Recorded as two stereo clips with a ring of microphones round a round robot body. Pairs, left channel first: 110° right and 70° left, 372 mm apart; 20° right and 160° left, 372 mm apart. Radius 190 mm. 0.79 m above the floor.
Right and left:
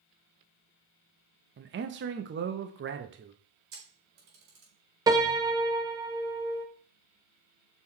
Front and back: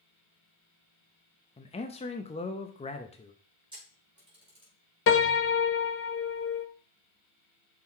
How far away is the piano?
About 0.6 m.